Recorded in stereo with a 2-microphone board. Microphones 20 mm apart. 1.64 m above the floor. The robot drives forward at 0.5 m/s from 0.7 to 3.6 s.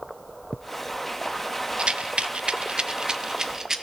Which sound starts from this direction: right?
A rattle, at 1.8 s.